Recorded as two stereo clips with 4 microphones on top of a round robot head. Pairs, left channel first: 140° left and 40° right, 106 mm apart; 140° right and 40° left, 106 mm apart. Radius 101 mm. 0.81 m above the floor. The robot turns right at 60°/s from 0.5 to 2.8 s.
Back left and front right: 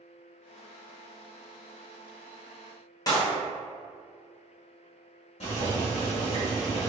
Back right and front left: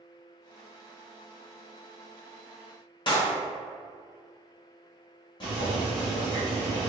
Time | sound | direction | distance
3.1 | a clap | 170° right | 1.3 m
5.4 | boiling | 175° left | 1.2 m